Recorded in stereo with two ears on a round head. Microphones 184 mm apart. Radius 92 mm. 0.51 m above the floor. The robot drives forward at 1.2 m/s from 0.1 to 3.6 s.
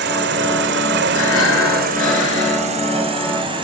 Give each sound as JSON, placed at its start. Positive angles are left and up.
{"t": 0.0, "sound": "an insect", "side_deg": -55, "distance_m": 2.0}
{"t": 1.1, "sound": "breathing", "side_deg": 75, "distance_m": 8.0}